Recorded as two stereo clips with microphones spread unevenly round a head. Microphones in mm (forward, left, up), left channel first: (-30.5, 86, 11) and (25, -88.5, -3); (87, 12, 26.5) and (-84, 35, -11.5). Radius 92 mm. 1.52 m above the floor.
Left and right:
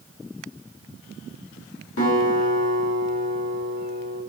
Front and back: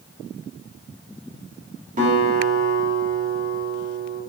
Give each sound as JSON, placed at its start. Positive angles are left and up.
{"t": 2.0, "sound": "a guitar", "azimuth_deg": 125, "distance_m": 3.5}